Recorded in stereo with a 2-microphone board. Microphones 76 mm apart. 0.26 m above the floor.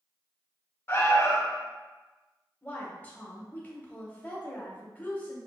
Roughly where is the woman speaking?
Centre.